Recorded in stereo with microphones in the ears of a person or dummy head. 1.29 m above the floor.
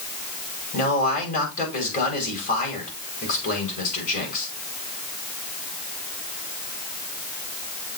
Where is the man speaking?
50° left (ahead or behind), 5 m.